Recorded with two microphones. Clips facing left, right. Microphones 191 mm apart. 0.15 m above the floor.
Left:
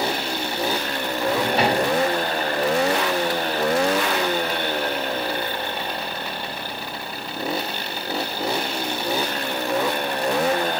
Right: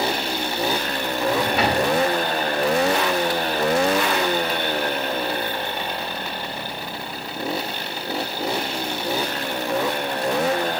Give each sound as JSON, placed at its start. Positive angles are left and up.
{"t": 1.2, "sound": "a drawer", "side_deg": 35, "distance_m": 5.5}